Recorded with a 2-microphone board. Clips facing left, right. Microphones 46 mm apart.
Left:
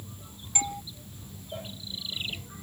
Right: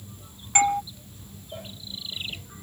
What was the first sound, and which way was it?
A doorbell, 55° right (ahead or behind).